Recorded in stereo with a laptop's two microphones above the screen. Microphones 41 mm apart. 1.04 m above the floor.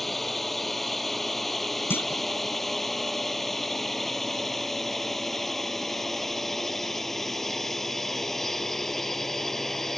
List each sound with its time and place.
0.0 s a drone: 5° left (ahead or behind)
1.9 s a clunk: 60° left (ahead or behind)